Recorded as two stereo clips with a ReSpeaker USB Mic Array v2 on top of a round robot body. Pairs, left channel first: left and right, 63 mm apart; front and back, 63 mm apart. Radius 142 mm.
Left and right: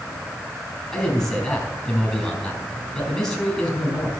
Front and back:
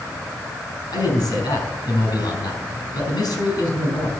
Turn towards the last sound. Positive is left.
turn(degrees=10)